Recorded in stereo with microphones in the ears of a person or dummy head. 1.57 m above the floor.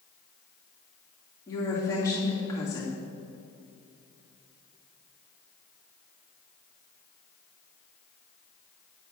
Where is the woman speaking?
15° left (ahead or behind), 2.5 m.